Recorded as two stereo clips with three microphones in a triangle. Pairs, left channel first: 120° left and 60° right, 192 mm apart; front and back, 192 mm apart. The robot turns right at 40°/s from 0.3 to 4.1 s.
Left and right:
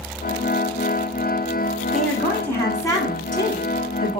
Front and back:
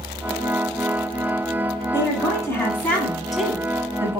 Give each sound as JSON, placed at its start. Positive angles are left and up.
{"t": 1.9, "sound": "a woman speaking", "azimuth_deg": 35, "distance_m": 1.1}